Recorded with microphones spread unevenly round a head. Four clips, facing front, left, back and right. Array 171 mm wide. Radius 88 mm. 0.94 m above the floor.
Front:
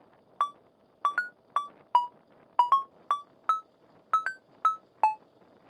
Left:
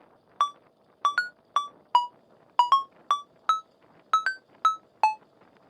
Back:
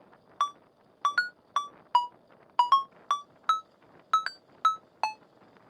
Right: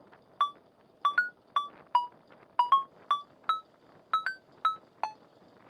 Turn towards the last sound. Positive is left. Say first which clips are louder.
# left 3 dB, even
turn(degrees=50)